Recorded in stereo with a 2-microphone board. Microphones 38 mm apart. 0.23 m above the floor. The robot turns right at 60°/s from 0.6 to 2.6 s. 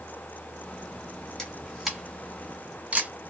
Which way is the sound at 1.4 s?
15° left (ahead or behind).